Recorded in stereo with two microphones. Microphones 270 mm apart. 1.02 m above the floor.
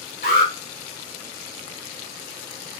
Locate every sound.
0.2 s an alarm: 35° left (ahead or behind), 3 m